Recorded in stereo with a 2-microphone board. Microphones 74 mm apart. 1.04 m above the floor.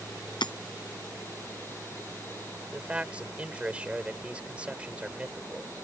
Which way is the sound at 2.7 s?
15° right (ahead or behind).